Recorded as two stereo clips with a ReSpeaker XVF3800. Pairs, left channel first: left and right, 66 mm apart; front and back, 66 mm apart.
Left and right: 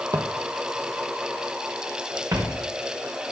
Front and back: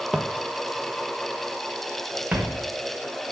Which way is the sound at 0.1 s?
95° right.